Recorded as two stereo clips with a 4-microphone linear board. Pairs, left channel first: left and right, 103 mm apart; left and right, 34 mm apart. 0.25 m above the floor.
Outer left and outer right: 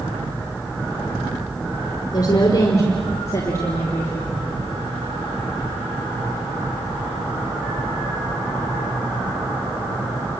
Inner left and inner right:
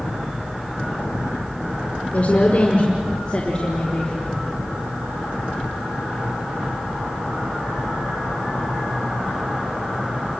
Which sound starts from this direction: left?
A woman speaking, at 2.1 s.